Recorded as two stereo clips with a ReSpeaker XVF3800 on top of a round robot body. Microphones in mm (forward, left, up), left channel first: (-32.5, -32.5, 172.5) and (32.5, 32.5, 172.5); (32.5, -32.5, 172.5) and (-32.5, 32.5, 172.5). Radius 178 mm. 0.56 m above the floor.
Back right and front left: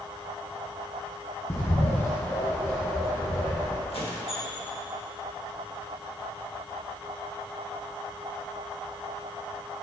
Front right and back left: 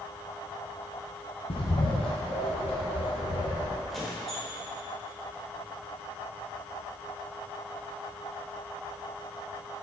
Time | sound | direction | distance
1.5 | a bird | 70° right | 1.0 m
3.9 | a squeak | 135° right | 1.3 m